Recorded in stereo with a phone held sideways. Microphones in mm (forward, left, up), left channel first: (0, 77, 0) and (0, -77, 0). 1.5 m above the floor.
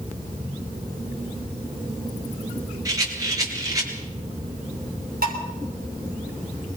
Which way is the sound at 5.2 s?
75° right (ahead or behind).